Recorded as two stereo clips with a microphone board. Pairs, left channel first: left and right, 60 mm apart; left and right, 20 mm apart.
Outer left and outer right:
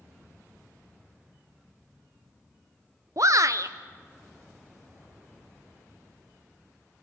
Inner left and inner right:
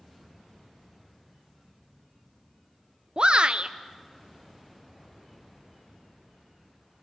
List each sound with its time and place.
3.2 s a shout: 60° right (ahead or behind), 0.5 m